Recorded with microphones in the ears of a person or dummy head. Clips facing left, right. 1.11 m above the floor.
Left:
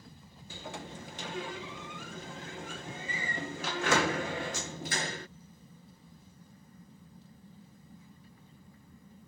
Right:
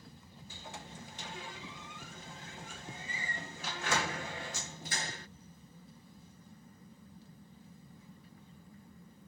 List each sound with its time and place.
0.5 s a sliding door: 50° left (ahead or behind)